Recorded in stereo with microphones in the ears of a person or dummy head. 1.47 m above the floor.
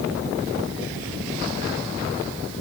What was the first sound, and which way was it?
Only background noise.